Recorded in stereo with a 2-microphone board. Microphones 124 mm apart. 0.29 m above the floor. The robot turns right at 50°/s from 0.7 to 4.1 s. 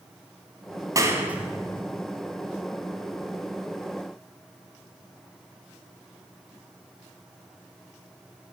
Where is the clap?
25° right (ahead or behind), 1.4 m; by 1.8 s 10° left (ahead or behind), 1.4 m.